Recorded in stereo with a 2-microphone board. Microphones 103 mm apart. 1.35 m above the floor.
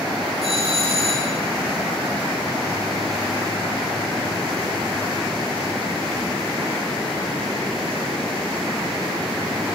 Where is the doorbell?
70° right (ahead or behind), 8.5 m.